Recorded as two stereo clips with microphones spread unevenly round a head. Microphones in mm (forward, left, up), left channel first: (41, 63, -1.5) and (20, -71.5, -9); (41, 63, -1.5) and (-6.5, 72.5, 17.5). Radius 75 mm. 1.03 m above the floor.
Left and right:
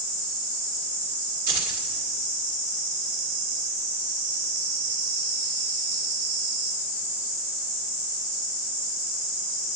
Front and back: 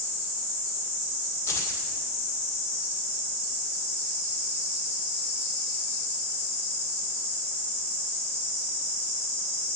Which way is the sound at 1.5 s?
80° right.